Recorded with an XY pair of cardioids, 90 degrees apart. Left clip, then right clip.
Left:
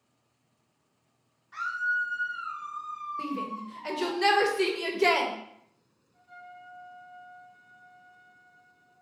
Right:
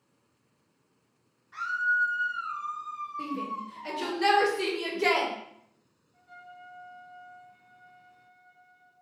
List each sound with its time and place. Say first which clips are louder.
1.5 s a scream: right 2 dB; 25° left, 0.6 m; by 4.2 s 75° right, 1.1 m
3.2 s a shout: even; 25° left, 0.7 m
6.1 s a trumpet: left 1 dB; 40° right, 1.1 m